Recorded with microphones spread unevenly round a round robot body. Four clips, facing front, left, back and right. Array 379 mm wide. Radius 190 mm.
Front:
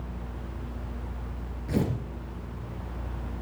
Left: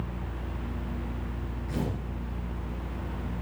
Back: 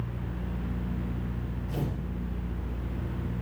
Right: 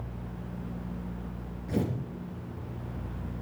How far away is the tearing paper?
About 4 m.